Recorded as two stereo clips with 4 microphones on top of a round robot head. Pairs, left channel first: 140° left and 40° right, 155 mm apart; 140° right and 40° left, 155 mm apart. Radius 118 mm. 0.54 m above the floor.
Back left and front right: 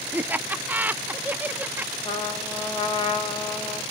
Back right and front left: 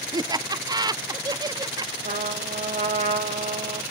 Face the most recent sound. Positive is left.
turn(degrees=80)